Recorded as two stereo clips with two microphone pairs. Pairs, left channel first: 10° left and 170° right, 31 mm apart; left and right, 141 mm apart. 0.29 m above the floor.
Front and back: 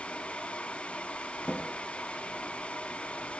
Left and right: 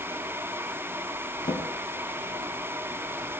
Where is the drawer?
60° left, 4 m.